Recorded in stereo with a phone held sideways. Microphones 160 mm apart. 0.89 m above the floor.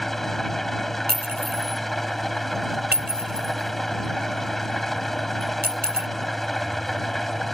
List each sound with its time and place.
0.0 s an engine running: centre (ahead or behind)
1.1 s a clink: 75° right (ahead or behind)